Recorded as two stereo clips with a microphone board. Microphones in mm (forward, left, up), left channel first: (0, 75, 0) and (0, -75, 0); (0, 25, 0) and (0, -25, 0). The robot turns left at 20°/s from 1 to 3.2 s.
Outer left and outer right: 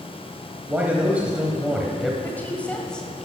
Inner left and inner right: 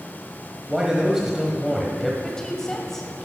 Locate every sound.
0.7 s a man speaking: 10° right (ahead or behind), 1.0 m; by 2.1 s centre (ahead or behind), 1.0 m
2.2 s a woman speaking: 15° left (ahead or behind), 1.5 m; by 3.3 s 5° left (ahead or behind), 1.5 m